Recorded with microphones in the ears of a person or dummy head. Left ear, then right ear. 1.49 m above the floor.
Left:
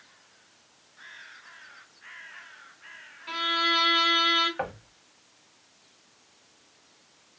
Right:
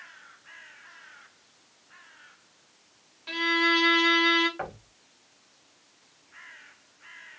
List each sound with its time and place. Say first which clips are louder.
3.3 s a violin: right 1 dB; 10° right (ahead or behind), 1.5 m
4.6 s knocking: left 3 dB; 15° left (ahead or behind), 0.8 m